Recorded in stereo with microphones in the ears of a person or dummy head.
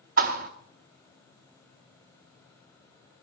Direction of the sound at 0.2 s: 40° right (ahead or behind).